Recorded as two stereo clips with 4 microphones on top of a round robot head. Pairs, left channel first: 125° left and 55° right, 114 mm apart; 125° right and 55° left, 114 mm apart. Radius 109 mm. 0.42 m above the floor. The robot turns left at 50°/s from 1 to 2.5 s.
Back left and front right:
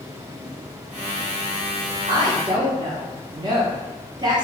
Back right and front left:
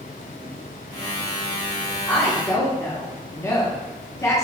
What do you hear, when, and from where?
2.1 s a woman speaking: 55° right, 1.2 m; by 4.4 s 75° right, 1.2 m